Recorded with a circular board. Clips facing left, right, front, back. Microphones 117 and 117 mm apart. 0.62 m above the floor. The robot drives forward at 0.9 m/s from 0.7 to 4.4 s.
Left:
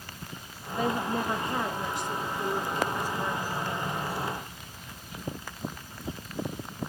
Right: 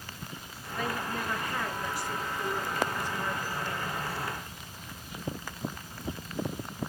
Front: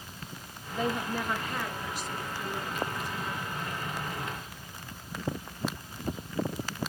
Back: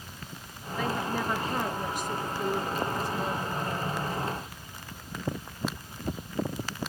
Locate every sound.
0.7 s a woman speaking: 40° left, 0.7 m; by 4.0 s 175° left, 2.5 m